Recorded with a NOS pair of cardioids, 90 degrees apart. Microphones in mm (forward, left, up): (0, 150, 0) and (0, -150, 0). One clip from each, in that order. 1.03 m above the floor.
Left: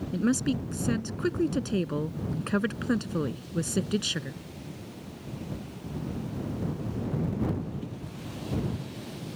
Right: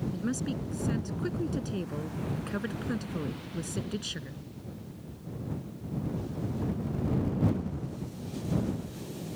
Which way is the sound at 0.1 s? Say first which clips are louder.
Left 6 dB; 55° left.